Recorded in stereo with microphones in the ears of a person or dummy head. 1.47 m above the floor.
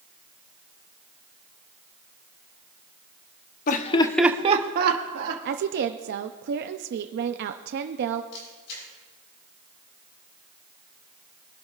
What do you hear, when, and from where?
3.7 s laughter: 50° left (ahead or behind), 1.0 m; by 5.3 s 65° right (ahead or behind), 1.7 m
5.5 s a woman speaking: 60° right (ahead or behind), 0.5 m
8.3 s a camera shutter: 70° left (ahead or behind), 7 m